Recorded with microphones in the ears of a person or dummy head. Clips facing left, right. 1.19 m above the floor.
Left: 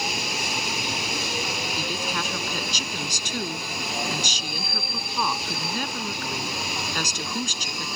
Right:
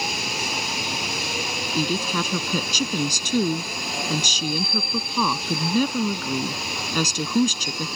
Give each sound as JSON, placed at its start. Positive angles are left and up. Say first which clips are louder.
{"t": 1.8, "sound": "a woman speaking", "louder": "right 10 dB", "side_deg": -75}